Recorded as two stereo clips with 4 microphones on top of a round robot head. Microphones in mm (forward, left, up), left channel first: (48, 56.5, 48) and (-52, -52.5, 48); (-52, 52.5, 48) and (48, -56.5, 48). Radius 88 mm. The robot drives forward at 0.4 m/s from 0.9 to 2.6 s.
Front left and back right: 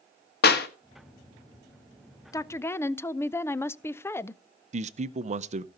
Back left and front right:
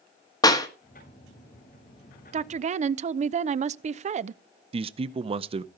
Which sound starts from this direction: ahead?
A woman speaking, at 2.3 s.